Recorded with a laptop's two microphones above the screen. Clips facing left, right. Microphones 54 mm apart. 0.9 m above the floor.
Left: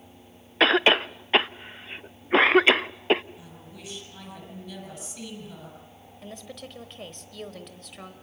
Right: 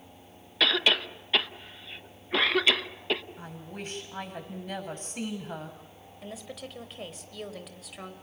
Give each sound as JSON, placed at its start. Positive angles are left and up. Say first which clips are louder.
{"t": 0.6, "sound": "a cough", "louder": "left 6 dB", "side_deg": 35, "distance_m": 0.8}
{"t": 3.4, "sound": "a woman speaking", "louder": "right 5 dB", "side_deg": -45, "distance_m": 7.0}
{"t": 6.2, "sound": "a woman speaking", "louder": "even", "side_deg": 0, "distance_m": 3.5}